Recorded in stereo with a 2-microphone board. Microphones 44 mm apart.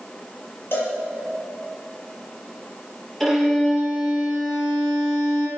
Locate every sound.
0.7 s a cowbell: 60° left (ahead or behind), 4 m
3.2 s a violin: 5° left (ahead or behind), 5 m